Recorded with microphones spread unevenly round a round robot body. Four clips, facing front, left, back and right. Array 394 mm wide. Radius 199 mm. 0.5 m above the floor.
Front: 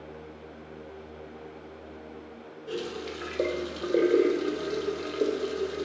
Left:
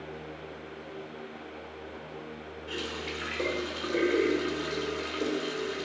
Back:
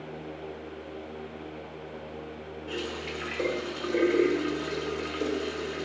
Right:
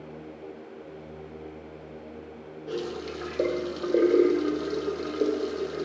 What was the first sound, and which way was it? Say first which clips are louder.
A running tap: right 5 dB, front 2 dB; 55° right.